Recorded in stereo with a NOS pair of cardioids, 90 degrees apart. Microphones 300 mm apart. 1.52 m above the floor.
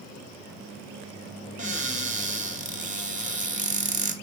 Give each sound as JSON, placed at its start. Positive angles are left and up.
{"t": 1.6, "sound": "a cupboard door", "azimuth_deg": -25, "distance_m": 0.8}